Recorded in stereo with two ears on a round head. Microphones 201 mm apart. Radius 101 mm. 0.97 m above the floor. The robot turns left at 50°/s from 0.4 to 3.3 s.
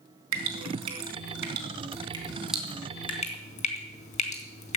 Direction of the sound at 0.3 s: 70° right (ahead or behind).